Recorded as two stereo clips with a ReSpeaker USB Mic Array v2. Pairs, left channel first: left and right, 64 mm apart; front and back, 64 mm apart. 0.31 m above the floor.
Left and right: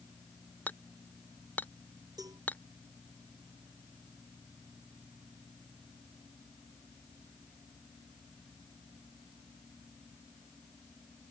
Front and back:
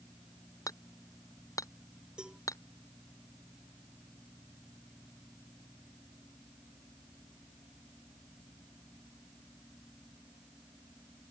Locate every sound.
0.7 s hammering: 30° left
2.2 s a cowbell: 105° right